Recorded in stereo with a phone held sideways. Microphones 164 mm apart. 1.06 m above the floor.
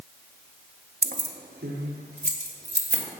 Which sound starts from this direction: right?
Keys jangling, at 1.0 s.